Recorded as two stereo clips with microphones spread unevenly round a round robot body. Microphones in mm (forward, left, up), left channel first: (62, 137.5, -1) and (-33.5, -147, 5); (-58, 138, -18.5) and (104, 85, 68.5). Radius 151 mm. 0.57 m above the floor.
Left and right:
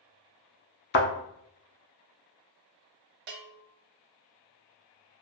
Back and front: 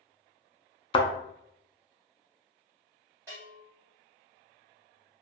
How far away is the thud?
About 0.5 m.